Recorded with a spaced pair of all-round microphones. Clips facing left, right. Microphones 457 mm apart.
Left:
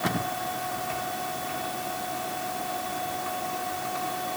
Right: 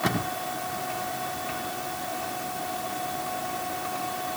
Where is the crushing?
No crushing in this recording.